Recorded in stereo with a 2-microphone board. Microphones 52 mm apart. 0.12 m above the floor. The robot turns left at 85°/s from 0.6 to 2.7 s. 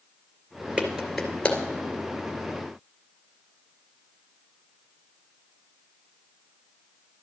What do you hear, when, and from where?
0.8 s a clap: 25° right (ahead or behind), 2 m; by 1.6 s 30° left (ahead or behind), 2 m